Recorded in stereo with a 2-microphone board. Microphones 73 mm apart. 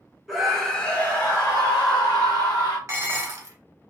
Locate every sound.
0.3 s a scream: 5° right (ahead or behind), 0.9 m; by 2.8 s 80° left, 1.0 m
2.9 s dishes clattering: 40° right (ahead or behind), 0.7 m